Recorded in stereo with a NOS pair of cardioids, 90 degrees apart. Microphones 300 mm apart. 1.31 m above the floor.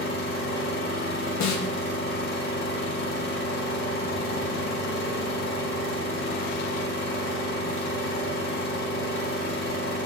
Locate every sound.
0.0 s an engine running: 45° left, 4 m
1.4 s a snare drum: 70° left, 1.1 m